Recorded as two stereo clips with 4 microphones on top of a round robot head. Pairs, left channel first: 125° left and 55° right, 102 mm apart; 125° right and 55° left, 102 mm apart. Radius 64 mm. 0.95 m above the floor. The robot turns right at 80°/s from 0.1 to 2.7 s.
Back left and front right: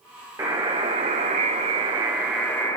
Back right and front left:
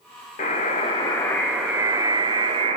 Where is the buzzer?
120° right, 4 m; by 2.8 s 65° left, 4 m.